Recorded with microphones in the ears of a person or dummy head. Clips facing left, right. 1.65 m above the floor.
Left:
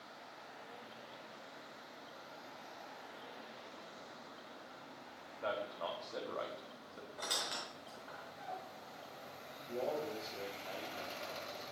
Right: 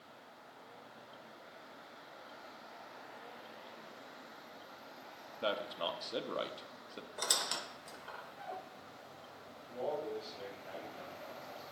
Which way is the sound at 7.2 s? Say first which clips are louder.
Right 2 dB; 55° right (ahead or behind).